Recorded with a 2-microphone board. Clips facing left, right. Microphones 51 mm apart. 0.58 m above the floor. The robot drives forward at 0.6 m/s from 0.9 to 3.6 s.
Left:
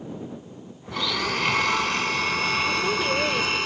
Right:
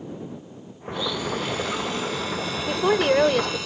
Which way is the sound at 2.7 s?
65° right (ahead or behind).